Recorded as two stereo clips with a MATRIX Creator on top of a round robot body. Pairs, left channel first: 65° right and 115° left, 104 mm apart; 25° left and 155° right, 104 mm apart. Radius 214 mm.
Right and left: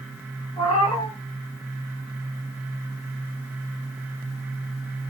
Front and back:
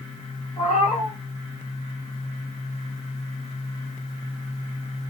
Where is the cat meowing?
15° right, 4.5 m.